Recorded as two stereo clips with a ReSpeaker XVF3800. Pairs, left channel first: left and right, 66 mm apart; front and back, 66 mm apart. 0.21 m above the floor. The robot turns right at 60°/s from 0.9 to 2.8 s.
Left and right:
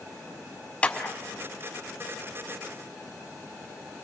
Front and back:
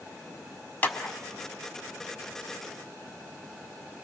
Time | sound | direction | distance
0.8 | a clap | 35° left | 0.9 m